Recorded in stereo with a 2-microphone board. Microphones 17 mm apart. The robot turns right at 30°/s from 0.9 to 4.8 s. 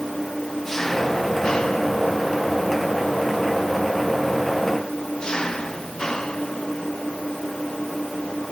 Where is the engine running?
20° left; by 8.5 s 135° left.